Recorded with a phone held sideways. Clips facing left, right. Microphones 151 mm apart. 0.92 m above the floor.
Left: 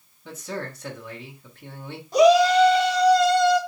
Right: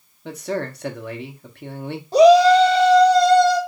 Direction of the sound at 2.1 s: 40° right (ahead or behind).